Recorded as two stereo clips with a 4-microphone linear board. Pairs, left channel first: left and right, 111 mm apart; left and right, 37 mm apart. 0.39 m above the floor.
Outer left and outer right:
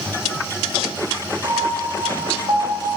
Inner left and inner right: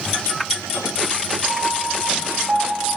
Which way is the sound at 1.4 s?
40° right (ahead or behind).